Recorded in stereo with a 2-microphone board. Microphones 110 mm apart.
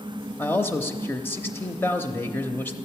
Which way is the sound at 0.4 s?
20° left (ahead or behind).